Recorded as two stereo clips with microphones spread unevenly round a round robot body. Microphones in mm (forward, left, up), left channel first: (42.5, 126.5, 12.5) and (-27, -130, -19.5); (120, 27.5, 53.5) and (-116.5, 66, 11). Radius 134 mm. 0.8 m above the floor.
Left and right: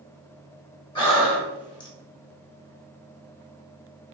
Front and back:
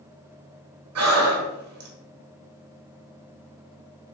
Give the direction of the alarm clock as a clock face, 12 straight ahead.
I don't hear an alarm clock.